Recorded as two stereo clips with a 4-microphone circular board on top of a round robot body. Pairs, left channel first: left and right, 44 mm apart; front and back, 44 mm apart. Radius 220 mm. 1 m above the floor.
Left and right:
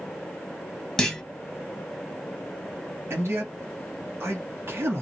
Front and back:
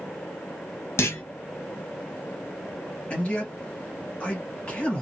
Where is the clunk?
10° left, 1.5 m.